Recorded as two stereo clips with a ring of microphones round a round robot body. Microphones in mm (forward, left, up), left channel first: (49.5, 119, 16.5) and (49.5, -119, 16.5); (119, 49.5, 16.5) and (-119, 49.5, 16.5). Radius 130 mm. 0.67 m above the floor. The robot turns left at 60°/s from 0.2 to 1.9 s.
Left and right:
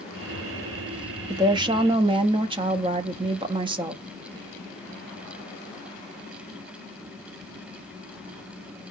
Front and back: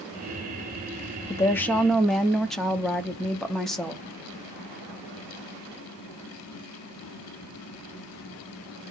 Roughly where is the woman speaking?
Ahead right.